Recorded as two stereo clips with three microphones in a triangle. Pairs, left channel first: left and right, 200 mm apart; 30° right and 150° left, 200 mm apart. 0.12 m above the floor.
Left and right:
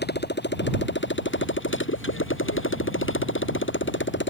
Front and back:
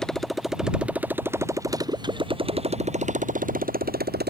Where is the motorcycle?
55° left; by 4.3 s 115° left.